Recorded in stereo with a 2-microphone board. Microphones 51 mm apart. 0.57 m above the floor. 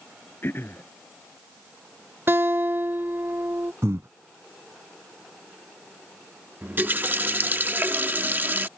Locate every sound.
0.4 s throat clearing: 45° left (ahead or behind)
2.3 s a guitar: 50° right (ahead or behind)
3.8 s breathing: 70° right (ahead or behind)
6.6 s a running tap: 35° right (ahead or behind)